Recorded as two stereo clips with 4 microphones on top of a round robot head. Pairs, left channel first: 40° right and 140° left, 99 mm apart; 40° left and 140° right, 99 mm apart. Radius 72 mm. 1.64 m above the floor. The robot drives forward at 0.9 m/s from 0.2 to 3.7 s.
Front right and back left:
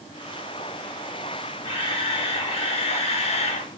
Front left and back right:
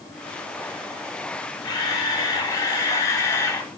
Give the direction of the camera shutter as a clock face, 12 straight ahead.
12 o'clock.